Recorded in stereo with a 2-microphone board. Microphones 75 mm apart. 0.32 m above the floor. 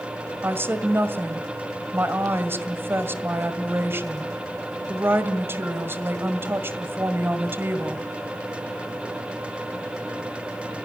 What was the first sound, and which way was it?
A woman speaking, 30° right (ahead or behind).